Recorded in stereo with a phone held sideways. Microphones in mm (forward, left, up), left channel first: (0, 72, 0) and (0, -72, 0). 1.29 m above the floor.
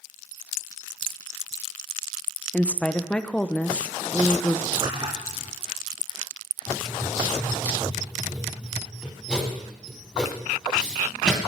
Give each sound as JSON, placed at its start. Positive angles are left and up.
{"t": 2.5, "sound": "a woman speaking", "side_deg": 10, "distance_m": 0.8}
{"t": 4.7, "sound": "a splash", "side_deg": -35, "distance_m": 3.0}
{"t": 6.7, "sound": "writing", "side_deg": -5, "distance_m": 3.0}